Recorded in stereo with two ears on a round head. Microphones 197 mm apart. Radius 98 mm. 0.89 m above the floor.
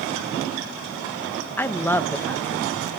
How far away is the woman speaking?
About 0.6 m.